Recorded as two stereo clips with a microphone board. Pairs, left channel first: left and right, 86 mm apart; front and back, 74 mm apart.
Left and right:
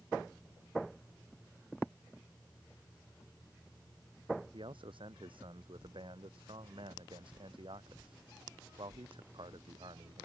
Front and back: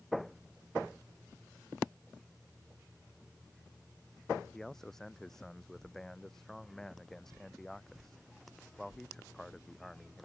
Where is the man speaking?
85° right.